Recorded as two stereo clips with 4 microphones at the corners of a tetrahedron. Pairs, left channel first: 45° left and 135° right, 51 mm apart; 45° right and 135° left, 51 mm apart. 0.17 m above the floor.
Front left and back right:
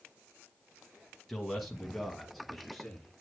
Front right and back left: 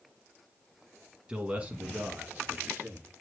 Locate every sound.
1.3 s a man speaking: 135° left, 1.4 m; by 3.2 s 130° left, 2 m